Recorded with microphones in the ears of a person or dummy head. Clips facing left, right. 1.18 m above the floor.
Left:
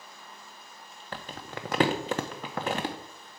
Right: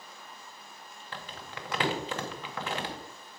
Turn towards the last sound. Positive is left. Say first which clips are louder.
# left 4 dB
turn(degrees=40)  # may be behind; listen again after turning